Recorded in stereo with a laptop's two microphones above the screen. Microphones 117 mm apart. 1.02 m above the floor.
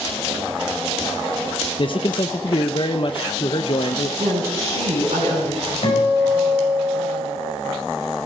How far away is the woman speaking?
About 9.5 m.